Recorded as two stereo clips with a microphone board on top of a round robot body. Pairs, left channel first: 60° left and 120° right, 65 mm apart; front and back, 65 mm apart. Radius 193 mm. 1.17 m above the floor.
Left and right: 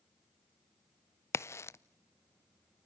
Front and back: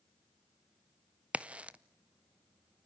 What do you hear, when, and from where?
1.3 s a crack: 110° left, 0.6 m